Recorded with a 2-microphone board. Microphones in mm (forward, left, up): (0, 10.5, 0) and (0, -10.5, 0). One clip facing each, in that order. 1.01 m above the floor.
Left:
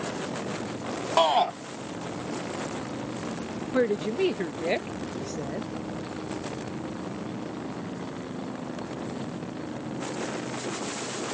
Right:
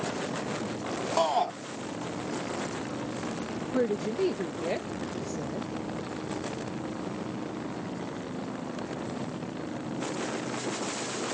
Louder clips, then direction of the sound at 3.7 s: Left 3 dB; 45° left (ahead or behind).